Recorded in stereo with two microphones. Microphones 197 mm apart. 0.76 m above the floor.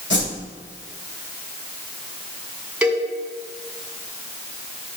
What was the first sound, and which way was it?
A whoosh, 70° left (ahead or behind).